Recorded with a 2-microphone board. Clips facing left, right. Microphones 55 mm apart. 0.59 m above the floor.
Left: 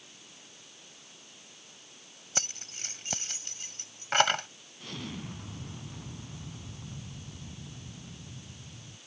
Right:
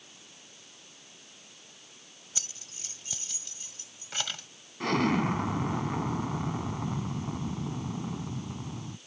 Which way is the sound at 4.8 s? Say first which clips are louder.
Right 15 dB; 75° right (ahead or behind).